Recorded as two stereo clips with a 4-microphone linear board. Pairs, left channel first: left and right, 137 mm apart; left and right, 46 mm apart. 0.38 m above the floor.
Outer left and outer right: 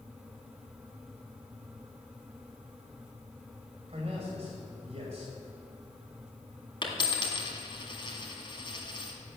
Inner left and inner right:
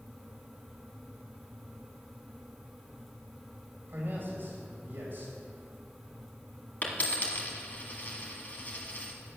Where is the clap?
No clap in this recording.